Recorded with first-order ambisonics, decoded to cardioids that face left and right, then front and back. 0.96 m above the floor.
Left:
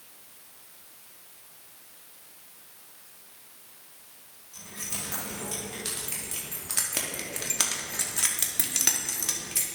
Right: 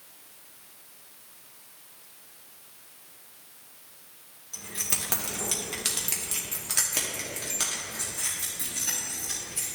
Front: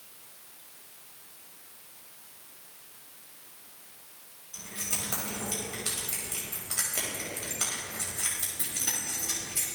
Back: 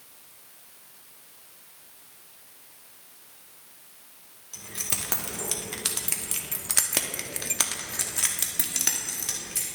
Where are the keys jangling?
135° right, 1.9 m; by 9.7 s 115° left, 1.7 m.